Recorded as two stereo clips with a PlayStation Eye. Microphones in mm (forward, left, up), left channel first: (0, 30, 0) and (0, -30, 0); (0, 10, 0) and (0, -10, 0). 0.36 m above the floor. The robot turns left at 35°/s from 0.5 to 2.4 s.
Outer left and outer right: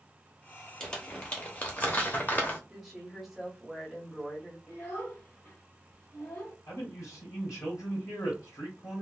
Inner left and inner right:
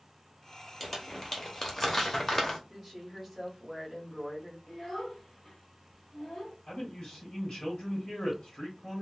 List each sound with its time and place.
0.8 s crumpling: 10° left (ahead or behind), 0.8 m; by 2.6 s 30° left (ahead or behind), 0.8 m
2.7 s a woman speaking: centre (ahead or behind), 1.7 m
4.7 s a child speaking: 25° left (ahead or behind), 1.2 m
6.7 s a man speaking: 60° left (ahead or behind), 2 m